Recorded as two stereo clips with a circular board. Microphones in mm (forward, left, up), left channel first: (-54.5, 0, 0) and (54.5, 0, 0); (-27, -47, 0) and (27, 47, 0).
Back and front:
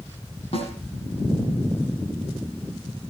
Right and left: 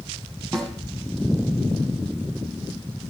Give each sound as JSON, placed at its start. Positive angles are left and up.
{"t": 0.5, "sound": "a snare drum", "azimuth_deg": 155, "distance_m": 6.5}